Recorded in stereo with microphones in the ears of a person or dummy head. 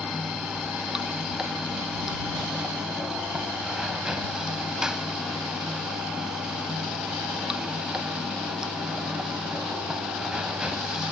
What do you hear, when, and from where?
0.0 s running water: 5° right (ahead or behind)